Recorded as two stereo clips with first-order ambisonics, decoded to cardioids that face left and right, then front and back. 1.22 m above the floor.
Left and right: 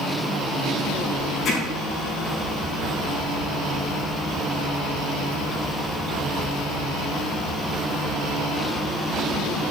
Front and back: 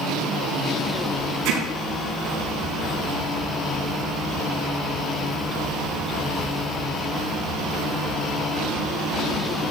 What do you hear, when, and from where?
1.4 s hammering: 155° left, 5.5 m